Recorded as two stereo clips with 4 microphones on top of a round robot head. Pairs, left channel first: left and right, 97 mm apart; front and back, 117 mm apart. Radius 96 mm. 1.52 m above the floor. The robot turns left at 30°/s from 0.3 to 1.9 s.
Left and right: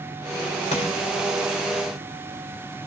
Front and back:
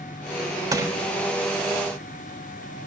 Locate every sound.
0.7 s crushing: 120° left, 3.5 m; by 0.9 s 115° left, 3.5 m